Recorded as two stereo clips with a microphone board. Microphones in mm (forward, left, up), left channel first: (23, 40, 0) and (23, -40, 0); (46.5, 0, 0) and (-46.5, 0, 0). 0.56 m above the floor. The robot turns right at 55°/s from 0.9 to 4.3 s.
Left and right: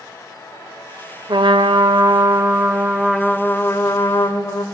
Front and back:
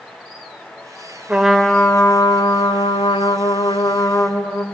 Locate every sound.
1.3 s a trumpet: 100° right, 0.6 m; by 4.6 s 65° left, 0.6 m